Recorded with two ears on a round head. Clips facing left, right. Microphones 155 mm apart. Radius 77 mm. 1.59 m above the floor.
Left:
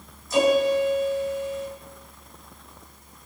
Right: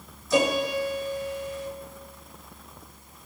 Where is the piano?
65° right (ahead or behind), 7.5 m.